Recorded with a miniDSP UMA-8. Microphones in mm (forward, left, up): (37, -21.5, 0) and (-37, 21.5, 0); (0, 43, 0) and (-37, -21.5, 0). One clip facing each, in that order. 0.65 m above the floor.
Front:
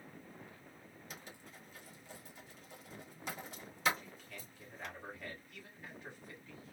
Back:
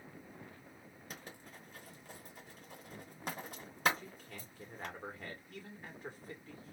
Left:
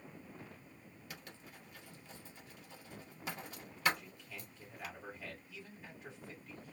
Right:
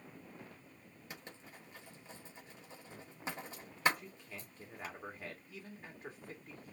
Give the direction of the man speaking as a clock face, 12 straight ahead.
5 o'clock.